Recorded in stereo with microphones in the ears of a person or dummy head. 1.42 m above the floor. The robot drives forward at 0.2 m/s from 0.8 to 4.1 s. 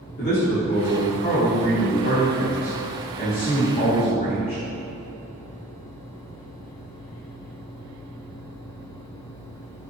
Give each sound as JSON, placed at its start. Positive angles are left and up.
{"t": 0.2, "sound": "a man speaking", "side_deg": 55, "distance_m": 0.8}